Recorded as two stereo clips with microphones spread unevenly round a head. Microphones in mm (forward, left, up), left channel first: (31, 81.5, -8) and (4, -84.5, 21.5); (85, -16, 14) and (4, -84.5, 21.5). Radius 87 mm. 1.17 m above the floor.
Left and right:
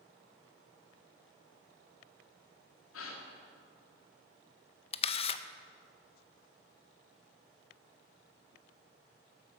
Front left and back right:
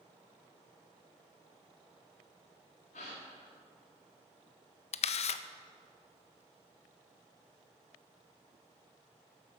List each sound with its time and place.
2.9 s a gasp: 85° left, 1.9 m
4.9 s a camera shutter: 20° left, 0.5 m